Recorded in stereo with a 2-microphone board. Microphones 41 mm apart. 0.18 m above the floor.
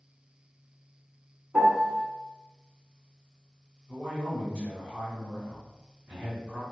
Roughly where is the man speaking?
Centre.